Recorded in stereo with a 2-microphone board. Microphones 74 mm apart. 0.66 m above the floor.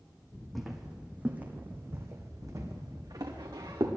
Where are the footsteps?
Centre (ahead or behind), 2.0 m; by 3.9 s 65° right (ahead or behind), 3 m.